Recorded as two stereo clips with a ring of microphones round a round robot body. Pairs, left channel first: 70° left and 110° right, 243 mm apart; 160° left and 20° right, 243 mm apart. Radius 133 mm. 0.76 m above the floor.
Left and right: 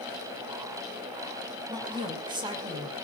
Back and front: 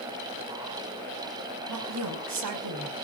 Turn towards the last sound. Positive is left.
turn(degrees=-40)